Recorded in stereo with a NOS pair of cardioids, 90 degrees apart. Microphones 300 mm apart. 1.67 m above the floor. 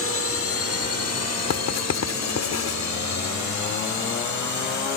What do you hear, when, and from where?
0.0 s a drone: 50° left; by 5.0 s 75° left
1.5 s writing: 60° left